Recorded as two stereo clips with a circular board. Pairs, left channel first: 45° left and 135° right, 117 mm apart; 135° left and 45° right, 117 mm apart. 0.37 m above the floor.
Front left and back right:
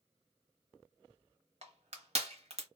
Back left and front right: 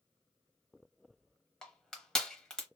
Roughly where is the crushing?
Behind right.